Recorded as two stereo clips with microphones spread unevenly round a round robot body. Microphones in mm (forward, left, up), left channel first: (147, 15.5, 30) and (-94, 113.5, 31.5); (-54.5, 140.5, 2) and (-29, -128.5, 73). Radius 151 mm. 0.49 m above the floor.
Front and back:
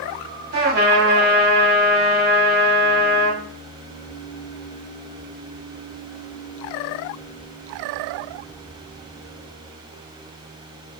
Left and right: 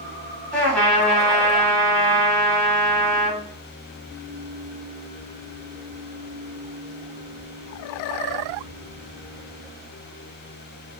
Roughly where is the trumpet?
Behind.